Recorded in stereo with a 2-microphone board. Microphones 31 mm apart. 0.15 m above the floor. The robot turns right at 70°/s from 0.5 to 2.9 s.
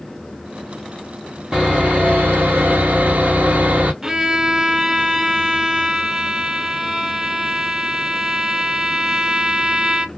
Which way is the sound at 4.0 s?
15° right (ahead or behind).